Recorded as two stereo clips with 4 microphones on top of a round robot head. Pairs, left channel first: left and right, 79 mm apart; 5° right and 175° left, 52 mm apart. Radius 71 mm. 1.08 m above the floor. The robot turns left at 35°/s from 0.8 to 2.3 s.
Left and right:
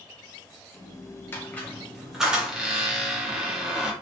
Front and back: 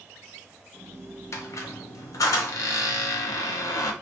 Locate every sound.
1.3 s a squeak: 25° left, 0.5 m; by 3.9 s 10° right, 0.5 m